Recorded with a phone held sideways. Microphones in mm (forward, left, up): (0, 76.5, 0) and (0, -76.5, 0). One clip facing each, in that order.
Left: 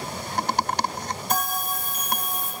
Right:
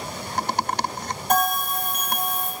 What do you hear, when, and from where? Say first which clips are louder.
1.3 s a bell: right 7 dB; 65° right (ahead or behind), 1.4 m